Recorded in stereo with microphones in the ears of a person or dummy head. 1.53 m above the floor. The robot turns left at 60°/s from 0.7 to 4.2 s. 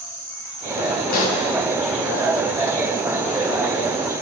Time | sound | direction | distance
1.1 | a pop | 50° left (ahead or behind) | 1.6 m